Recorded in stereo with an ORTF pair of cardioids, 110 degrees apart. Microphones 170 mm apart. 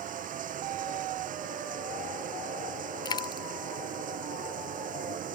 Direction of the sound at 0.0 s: 55° right.